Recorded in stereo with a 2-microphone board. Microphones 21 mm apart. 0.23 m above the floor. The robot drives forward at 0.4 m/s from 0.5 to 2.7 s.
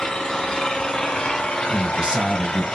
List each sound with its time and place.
0.0 s an engine running: 45° left (ahead or behind), 1.0 m; by 2.8 s 55° left (ahead or behind), 0.8 m
1.7 s a man speaking: 50° right (ahead or behind), 1.9 m; by 2.8 s 55° right (ahead or behind), 1.8 m